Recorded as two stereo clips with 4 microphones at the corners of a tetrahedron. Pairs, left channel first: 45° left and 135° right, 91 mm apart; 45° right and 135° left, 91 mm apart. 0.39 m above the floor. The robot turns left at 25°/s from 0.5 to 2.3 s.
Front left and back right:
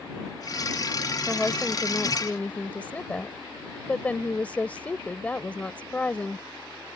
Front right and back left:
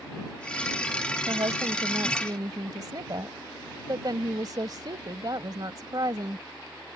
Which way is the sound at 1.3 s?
140° left.